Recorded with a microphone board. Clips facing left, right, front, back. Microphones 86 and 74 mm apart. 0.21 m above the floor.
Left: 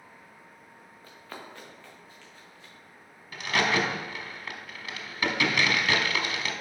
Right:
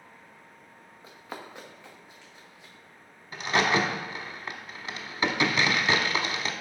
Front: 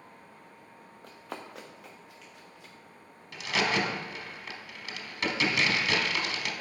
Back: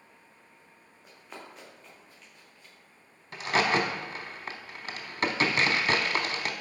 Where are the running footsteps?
15° right, 1.4 m.